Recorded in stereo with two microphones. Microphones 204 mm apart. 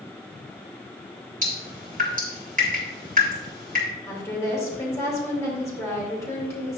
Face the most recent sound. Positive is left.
turn(degrees=15)  # may be behind; listen again after turning